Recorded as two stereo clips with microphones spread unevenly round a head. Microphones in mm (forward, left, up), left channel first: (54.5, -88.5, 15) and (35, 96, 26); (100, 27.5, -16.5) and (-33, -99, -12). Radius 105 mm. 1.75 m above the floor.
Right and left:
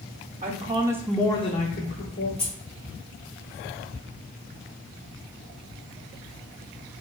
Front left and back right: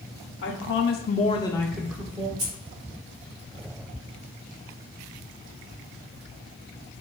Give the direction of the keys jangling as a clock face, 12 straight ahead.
4 o'clock.